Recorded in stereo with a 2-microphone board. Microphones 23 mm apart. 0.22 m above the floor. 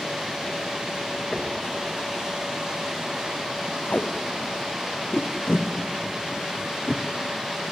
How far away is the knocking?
About 3 m.